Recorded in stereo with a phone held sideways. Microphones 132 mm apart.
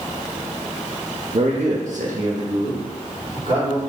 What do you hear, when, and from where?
1.3 s a man speaking: 50° right (ahead or behind), 0.5 m; by 3.8 s 40° right (ahead or behind), 2.0 m